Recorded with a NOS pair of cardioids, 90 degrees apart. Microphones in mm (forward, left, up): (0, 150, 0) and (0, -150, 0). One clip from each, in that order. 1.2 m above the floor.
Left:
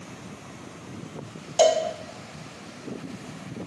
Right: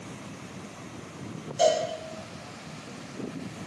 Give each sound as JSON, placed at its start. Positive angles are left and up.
{"t": 1.6, "sound": "a cowbell", "azimuth_deg": 50, "distance_m": 0.7}